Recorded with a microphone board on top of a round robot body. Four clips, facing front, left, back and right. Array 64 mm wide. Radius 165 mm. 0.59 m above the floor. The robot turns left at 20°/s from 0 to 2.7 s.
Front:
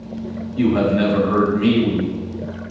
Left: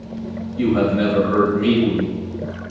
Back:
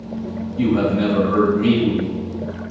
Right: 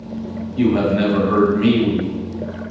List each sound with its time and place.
0.6 s a man speaking: 40° right, 1.5 m; by 2.1 s 70° right, 1.5 m